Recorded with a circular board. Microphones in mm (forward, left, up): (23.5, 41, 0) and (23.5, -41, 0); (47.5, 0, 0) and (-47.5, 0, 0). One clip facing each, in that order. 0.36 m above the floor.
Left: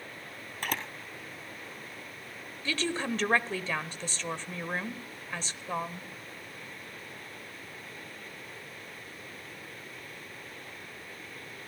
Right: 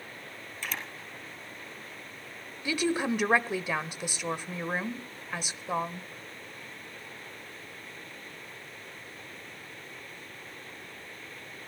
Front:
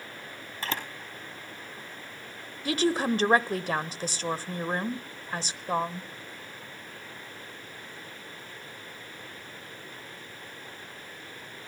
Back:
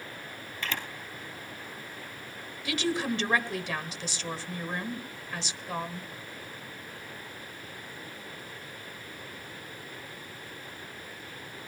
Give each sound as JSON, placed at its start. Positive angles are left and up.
{"t": 0.6, "sound": "a camera shutter", "azimuth_deg": 55, "distance_m": 2.0}
{"t": 2.6, "sound": "a woman speaking", "azimuth_deg": -20, "distance_m": 1.1}